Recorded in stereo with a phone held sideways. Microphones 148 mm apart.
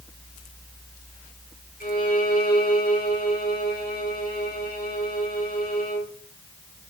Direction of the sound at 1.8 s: 80° left.